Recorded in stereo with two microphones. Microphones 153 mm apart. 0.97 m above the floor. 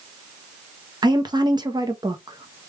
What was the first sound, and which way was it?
A woman speaking, 30° right (ahead or behind).